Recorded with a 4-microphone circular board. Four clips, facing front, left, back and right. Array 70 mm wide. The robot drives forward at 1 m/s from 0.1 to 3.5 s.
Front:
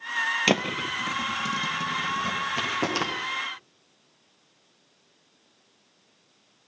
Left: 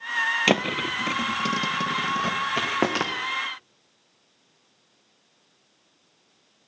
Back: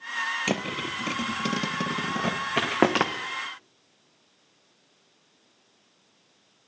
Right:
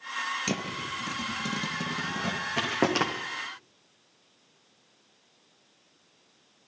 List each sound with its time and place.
0.5 s a thud: 65° left, 0.7 m; by 3.1 s 165° left, 2.5 m